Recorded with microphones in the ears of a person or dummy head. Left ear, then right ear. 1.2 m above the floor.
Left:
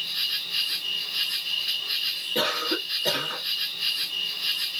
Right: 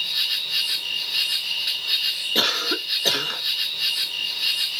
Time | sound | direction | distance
0.0 | an insect | 40° right (ahead or behind) | 1.4 m
2.4 | a cough | 30° right (ahead or behind) | 1.5 m